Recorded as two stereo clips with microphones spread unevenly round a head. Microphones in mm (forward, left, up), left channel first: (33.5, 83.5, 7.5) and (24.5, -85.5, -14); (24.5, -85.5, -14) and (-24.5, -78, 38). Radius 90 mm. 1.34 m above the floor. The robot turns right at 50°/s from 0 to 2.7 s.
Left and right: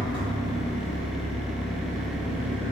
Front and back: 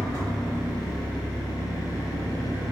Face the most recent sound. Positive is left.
turn(degrees=-50)